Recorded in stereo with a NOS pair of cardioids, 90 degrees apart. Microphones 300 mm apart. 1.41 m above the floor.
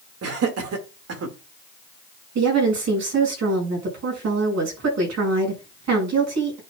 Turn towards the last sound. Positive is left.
turn(degrees=-60)